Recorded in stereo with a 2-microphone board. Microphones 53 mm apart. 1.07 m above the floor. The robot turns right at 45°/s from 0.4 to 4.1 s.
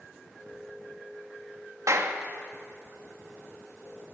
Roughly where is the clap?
Right.